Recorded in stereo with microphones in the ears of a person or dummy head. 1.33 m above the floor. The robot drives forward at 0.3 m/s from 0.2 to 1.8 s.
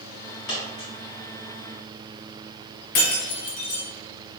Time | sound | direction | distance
0.5 | a dropped coin | 60° left (ahead or behind) | 1.9 m
3.0 | breaking glass | 65° left (ahead or behind) | 1.9 m